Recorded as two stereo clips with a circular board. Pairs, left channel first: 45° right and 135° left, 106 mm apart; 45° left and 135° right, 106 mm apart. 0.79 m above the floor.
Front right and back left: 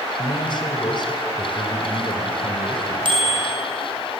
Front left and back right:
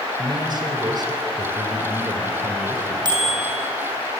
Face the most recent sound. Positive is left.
turn(degrees=175)